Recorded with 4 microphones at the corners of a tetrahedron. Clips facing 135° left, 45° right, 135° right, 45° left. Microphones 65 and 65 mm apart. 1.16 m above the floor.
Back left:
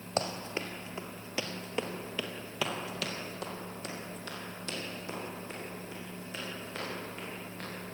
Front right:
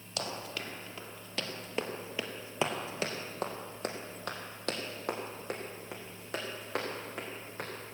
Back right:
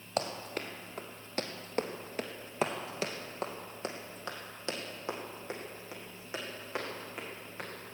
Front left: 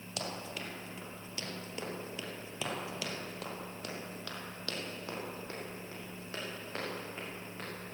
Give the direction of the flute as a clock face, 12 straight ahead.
I don't hear a flute.